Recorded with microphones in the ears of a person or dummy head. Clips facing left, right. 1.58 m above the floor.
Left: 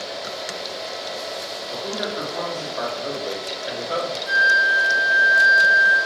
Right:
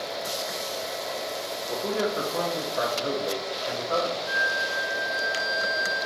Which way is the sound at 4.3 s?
30° left (ahead or behind).